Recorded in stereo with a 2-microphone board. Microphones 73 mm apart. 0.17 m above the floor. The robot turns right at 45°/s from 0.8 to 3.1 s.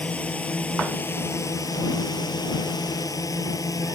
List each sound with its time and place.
0.0 s a drone: 20° left; by 4.0 s 120° left